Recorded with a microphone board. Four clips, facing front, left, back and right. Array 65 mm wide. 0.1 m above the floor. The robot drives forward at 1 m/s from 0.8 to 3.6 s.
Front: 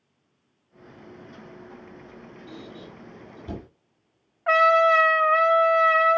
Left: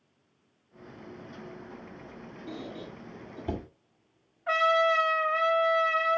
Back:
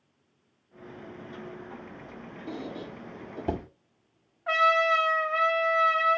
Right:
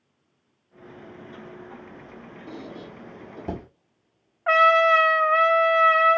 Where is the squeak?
155° right, 6.5 m; by 3.7 s 160° right, 7.5 m.